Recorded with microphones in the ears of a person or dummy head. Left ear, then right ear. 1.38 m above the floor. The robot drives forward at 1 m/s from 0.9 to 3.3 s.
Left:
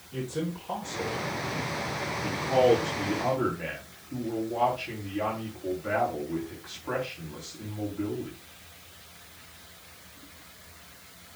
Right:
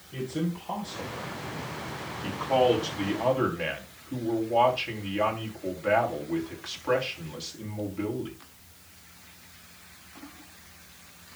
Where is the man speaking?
45° right (ahead or behind), 4 m; by 8.4 s 80° right, 3 m.